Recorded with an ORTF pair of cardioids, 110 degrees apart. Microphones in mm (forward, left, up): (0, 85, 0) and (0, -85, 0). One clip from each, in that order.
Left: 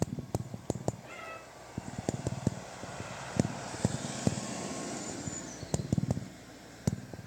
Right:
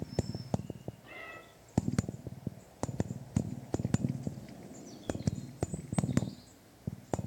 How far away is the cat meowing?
About 2.5 m.